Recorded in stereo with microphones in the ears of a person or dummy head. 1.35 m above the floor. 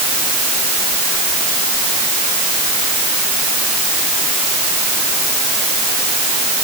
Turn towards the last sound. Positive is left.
No sound to turn to.